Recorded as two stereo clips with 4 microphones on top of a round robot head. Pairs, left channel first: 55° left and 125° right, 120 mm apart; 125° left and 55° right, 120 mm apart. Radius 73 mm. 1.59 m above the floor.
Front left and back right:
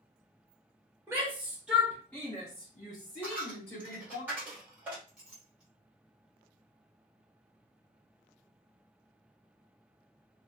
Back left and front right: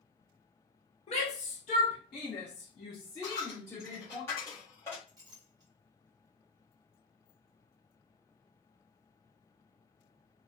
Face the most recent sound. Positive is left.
turn(degrees=-45)